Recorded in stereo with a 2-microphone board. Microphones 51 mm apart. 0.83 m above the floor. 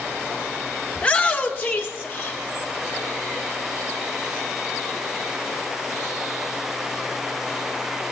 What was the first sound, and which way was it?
A shout, 25° left (ahead or behind).